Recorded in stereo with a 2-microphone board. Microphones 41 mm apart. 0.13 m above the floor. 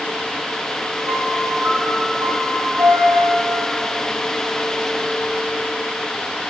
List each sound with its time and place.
1.1 s a piano: 65° right (ahead or behind), 4.5 m